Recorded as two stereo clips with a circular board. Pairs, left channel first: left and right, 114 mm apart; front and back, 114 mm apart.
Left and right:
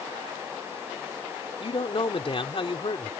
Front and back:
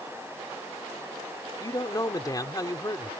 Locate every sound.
1.6 s a man speaking: 55° left